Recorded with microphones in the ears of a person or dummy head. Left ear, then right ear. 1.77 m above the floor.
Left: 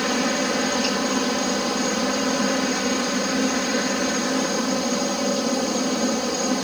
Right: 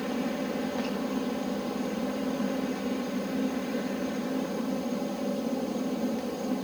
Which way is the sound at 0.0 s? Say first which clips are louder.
Left 10 dB; 55° left (ahead or behind).